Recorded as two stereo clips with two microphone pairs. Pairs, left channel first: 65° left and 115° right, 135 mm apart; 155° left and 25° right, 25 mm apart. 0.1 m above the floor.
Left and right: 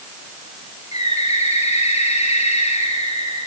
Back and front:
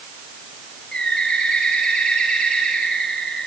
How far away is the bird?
About 9 m.